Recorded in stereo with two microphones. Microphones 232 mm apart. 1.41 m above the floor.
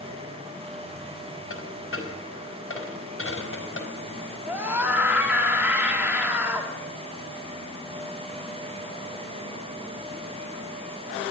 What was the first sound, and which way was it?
A dropped coin, 70° left (ahead or behind).